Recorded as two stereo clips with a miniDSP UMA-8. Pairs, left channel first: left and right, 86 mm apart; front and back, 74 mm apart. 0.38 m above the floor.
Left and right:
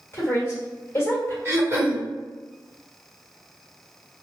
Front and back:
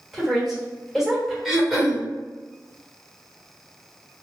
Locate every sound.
0.1 s a woman speaking: 95° left, 1.4 m
1.4 s throat clearing: 105° right, 1.3 m